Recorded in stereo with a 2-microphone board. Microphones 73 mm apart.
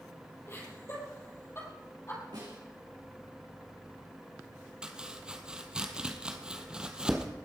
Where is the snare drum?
85° right, 6 m.